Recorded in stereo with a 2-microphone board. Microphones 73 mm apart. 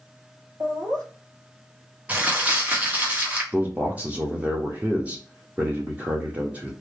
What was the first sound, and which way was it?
Laughter, 55° right (ahead or behind).